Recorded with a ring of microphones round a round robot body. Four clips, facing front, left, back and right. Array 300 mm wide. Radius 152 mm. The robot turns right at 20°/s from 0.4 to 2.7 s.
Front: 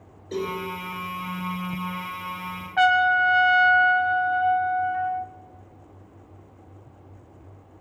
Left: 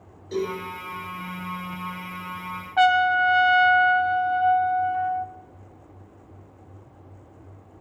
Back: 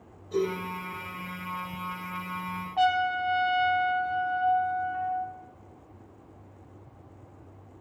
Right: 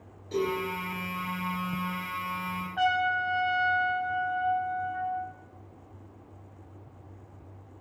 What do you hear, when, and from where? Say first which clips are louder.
0.3 s a cowbell: left 1 dB, back 1 dB; 10° left, 4 m
2.8 s a trumpet: left 8 dB, front 6 dB; 65° left, 0.6 m